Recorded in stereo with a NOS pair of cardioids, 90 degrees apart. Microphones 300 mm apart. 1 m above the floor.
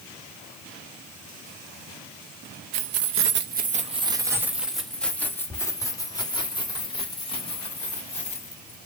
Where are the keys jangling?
65° right, 0.7 m; by 8.8 s 20° left, 3 m.